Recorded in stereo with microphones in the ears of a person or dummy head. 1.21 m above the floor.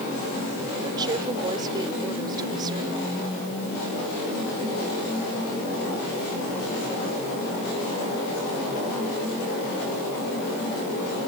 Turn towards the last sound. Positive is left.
turn(degrees=-25)  # may be behind; listen again after turning